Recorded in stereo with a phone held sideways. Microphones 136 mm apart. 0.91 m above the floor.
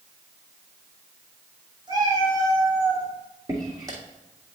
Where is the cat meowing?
30° right (ahead or behind), 3.5 m.